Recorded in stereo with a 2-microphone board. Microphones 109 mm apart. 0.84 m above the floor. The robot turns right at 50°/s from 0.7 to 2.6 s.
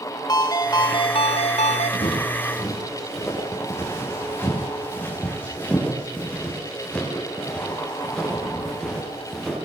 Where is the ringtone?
35° left, 1.4 m; by 1.9 s 95° left, 1.4 m.